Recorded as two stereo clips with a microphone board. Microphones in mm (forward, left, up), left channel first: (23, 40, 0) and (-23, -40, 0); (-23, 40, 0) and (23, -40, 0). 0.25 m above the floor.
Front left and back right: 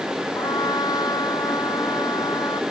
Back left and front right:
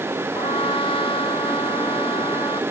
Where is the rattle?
I don't hear a rattle.